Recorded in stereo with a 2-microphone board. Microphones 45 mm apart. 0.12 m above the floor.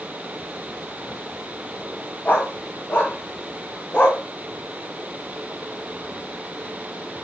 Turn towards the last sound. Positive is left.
turn(degrees=25)  # may be behind; listen again after turning